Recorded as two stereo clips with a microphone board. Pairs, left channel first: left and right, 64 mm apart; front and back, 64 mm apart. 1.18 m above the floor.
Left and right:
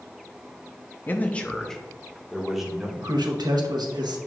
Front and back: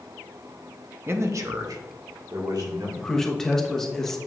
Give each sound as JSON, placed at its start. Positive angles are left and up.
{"t": 1.1, "sound": "a man speaking", "azimuth_deg": 140, "distance_m": 0.7}
{"t": 3.0, "sound": "a man speaking", "azimuth_deg": -85, "distance_m": 1.1}